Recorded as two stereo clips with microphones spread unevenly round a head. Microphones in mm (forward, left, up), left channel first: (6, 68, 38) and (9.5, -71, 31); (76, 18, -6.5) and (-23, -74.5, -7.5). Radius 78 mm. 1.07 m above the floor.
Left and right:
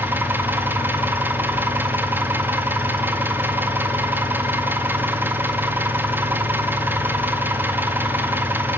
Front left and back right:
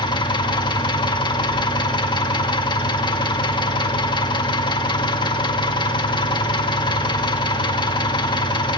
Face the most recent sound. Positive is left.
turn(degrees=-15)